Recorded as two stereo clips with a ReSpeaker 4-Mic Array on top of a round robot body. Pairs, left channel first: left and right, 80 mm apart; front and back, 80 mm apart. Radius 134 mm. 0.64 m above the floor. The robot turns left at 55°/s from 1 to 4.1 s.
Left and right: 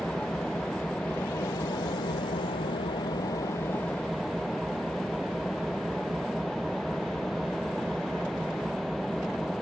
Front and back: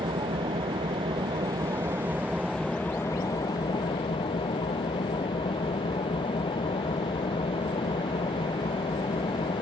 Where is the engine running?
175° left; by 9.6 s straight ahead.